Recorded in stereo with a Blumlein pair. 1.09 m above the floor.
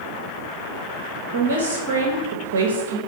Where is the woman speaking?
50° right, 0.6 m.